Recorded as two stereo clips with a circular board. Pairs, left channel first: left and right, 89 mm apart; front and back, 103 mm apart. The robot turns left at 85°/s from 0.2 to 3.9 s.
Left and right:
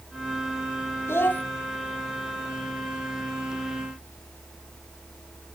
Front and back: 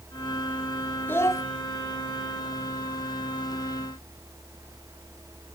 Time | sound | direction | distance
1.1 | a child speaking | 60° left | 0.8 m